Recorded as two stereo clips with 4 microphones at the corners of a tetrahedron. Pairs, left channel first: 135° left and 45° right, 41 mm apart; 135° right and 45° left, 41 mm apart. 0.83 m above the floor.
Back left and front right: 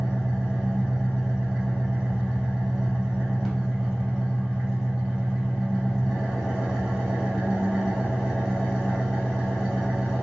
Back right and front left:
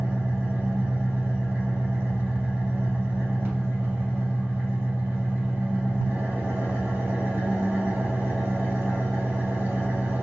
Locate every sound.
0.0 s an engine running: 35° left, 1.5 m